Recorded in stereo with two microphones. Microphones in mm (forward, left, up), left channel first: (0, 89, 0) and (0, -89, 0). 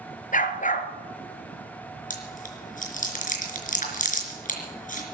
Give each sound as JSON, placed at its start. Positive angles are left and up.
{"t": 0.3, "sound": "a dog barking", "side_deg": 50, "distance_m": 1.9}
{"t": 2.1, "sound": "chewing", "side_deg": 50, "distance_m": 4.0}